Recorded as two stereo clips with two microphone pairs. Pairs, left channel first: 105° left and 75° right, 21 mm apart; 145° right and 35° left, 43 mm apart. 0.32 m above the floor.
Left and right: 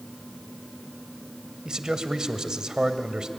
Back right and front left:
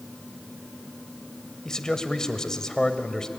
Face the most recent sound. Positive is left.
turn(degrees=-80)